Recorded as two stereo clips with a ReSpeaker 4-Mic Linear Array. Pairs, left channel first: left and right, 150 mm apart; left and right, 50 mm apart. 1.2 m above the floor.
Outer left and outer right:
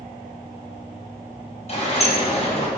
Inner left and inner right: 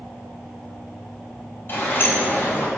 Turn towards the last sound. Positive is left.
turn(degrees=45)  # may be behind; listen again after turning